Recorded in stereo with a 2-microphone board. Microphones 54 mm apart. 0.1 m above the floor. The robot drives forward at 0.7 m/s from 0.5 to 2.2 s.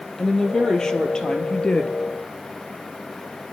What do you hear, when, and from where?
0.2 s a woman speaking: 15° left (ahead or behind), 2.5 m; by 1.9 s 20° left (ahead or behind), 1.6 m